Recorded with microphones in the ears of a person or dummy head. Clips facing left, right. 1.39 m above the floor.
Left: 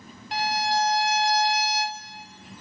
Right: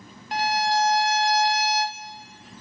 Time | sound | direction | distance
0.3 | a violin | 45° right (ahead or behind) | 0.9 m